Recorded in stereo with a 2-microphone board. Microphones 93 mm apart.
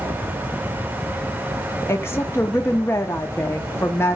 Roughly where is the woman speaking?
Left.